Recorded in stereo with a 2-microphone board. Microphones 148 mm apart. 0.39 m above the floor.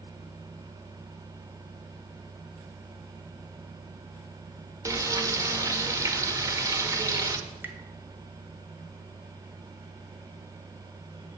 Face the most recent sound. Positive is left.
turn(degrees=-15)  # may be behind; listen again after turning